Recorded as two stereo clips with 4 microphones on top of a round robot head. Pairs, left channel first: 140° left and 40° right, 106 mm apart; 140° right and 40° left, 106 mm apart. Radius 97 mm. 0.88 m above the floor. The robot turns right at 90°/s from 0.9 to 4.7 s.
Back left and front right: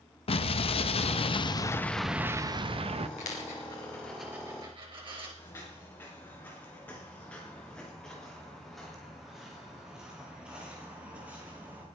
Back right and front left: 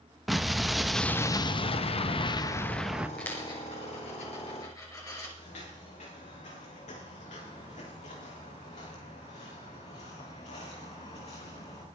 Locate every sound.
0.3 s an explosion: 130° left, 0.9 m; by 3.1 s 35° right, 0.9 m
3.2 s a dropped coin: 140° left, 4 m; by 5.3 s 85° right, 4 m
5.4 s footsteps: 155° right, 6.5 m; by 11.8 s 105° right, 6 m